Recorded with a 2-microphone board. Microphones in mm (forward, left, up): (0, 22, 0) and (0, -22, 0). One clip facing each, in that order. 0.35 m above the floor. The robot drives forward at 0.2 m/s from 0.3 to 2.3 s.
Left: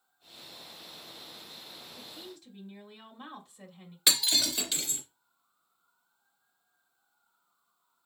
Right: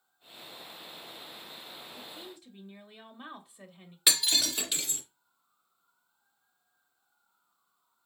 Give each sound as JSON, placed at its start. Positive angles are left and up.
{"t": 1.9, "sound": "a woman speaking", "side_deg": -20, "distance_m": 1.3}
{"t": 4.1, "sound": "breaking glass", "side_deg": -15, "distance_m": 3.0}